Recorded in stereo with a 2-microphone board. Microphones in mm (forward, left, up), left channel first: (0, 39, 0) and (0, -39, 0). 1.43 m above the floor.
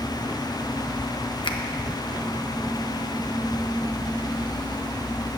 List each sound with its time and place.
1.4 s a finger snap: 85° left, 0.8 m